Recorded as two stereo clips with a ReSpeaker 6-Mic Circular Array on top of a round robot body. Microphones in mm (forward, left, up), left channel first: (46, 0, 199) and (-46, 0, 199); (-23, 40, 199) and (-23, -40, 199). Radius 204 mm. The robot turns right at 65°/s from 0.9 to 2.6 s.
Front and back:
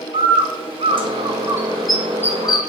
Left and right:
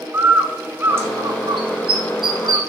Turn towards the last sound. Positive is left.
turn(degrees=-45)